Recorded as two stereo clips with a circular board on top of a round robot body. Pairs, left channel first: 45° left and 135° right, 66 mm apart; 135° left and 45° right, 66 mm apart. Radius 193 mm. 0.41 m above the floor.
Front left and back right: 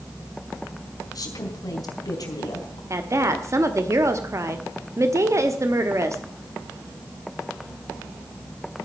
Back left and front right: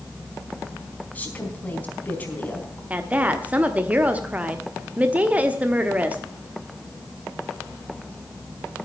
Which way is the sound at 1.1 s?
70° left.